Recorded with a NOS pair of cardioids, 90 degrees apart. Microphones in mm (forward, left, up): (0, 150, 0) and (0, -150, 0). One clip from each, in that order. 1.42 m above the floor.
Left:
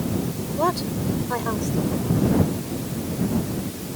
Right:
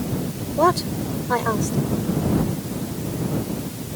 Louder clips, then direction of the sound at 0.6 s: Right 5 dB; 40° right.